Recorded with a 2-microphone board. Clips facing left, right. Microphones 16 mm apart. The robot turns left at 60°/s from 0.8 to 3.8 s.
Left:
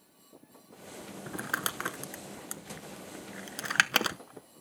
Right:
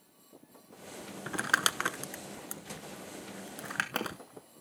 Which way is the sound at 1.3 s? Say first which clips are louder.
Right 5 dB; 55° right (ahead or behind).